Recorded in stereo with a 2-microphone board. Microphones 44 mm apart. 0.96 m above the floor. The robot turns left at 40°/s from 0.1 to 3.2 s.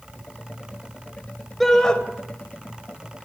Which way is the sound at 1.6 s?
5° left (ahead or behind).